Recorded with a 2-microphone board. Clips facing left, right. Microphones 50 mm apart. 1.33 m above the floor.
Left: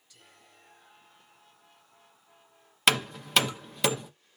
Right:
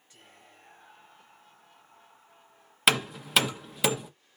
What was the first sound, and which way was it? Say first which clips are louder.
Whispering: right 3 dB; 35° right (ahead or behind).